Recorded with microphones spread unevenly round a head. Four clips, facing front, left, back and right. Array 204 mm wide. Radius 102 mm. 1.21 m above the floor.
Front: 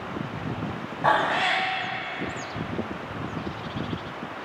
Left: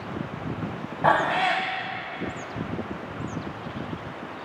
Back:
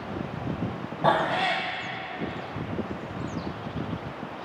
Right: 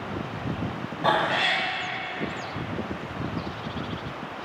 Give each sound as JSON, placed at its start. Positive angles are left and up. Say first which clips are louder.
{"t": 1.0, "sound": "a cat meowing", "louder": "left 3 dB, front 1 dB", "azimuth_deg": 120, "distance_m": 1.1}